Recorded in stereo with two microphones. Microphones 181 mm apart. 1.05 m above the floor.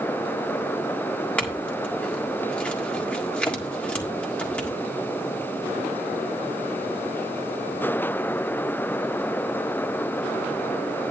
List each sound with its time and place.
1.4 s a clink: 5° left (ahead or behind), 1.7 m